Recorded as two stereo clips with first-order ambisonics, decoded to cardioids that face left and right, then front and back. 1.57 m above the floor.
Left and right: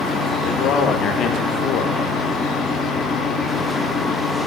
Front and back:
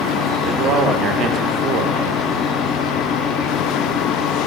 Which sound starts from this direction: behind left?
A man speaking, at 0.5 s.